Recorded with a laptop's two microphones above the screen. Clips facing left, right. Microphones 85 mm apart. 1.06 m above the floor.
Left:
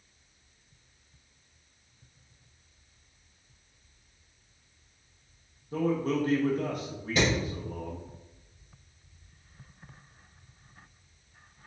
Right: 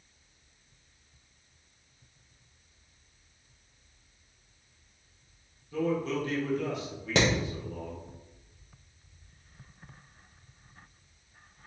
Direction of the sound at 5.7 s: 45° left (ahead or behind).